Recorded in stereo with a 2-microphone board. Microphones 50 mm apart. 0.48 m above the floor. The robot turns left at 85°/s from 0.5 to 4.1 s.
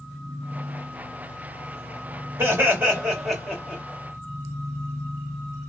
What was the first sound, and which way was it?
Laughter, 105° right.